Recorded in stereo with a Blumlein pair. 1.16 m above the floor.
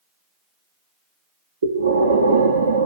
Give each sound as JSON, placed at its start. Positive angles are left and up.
{"t": 1.6, "sound": "breathing", "azimuth_deg": -70, "distance_m": 1.1}